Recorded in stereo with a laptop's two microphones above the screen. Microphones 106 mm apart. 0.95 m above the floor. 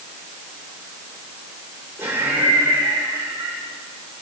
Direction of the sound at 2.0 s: 20° right (ahead or behind).